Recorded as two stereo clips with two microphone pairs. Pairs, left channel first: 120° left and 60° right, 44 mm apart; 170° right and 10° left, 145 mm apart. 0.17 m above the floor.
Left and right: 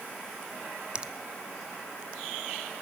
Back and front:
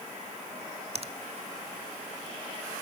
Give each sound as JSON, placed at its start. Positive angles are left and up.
{"t": 0.9, "sound": "a finger snap", "azimuth_deg": 0, "distance_m": 1.3}